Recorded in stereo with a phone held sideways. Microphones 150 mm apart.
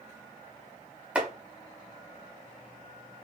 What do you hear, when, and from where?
1.1 s chopping: 10° right (ahead or behind), 0.9 m